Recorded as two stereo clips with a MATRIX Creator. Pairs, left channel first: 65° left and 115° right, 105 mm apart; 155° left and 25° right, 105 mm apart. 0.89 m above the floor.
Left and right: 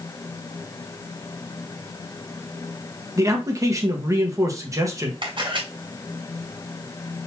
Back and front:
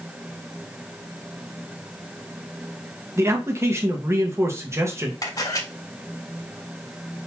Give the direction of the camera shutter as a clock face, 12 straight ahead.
5 o'clock.